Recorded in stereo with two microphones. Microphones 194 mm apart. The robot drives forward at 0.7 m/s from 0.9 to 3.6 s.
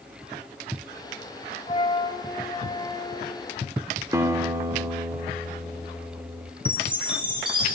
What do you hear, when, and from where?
1.7 s a flute: 35° left (ahead or behind), 1.0 m; by 3.4 s 15° left (ahead or behind), 2 m
4.1 s a guitar: 15° right (ahead or behind), 1.1 m
6.7 s a chime: 25° right (ahead or behind), 4 m